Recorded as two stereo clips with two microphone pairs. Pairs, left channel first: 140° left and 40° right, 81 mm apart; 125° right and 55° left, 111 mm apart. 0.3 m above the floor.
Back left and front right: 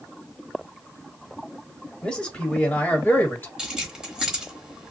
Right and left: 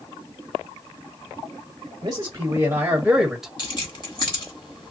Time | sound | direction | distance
2.0 | a man speaking | 70° left | 1.2 m
3.6 | keys jangling | 115° right | 1.2 m